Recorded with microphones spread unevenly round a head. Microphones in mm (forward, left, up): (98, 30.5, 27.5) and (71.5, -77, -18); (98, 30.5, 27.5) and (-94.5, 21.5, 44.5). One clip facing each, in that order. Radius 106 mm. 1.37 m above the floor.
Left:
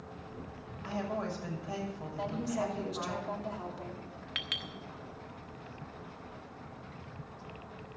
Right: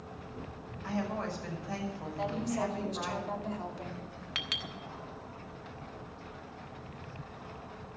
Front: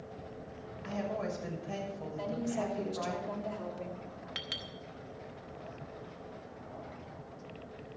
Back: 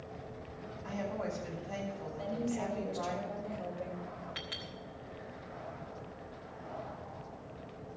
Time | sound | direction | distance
0.8 | a woman speaking | 5° left | 6.5 m
2.2 | a woman speaking | 5° right | 2.5 m
4.3 | a clink | 40° right | 1.3 m